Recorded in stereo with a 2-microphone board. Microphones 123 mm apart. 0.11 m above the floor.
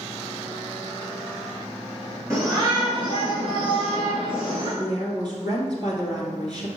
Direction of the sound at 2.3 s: 25° right (ahead or behind).